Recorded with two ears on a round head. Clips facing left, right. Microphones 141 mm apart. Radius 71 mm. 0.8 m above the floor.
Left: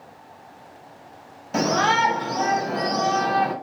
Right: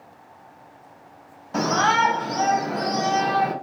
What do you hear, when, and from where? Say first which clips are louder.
1.5 s a shout: even; 25° left (ahead or behind), 1.1 m; by 3.5 s 20° right (ahead or behind), 1.3 m